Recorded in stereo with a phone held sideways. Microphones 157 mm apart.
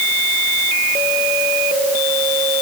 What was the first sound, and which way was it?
Only background noise.